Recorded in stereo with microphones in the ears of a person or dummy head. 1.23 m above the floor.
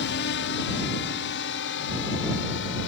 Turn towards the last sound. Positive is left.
turn(degrees=60)  # may be behind; listen again after turning